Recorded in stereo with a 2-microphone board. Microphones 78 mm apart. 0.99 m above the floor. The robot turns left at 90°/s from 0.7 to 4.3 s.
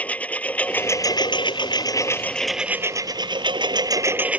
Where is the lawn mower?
160° left; by 4.4 s 160° right.